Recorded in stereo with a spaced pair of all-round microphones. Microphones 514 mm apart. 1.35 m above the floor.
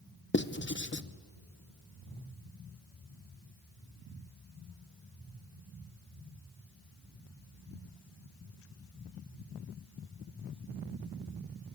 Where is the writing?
20° left (ahead or behind), 0.7 m.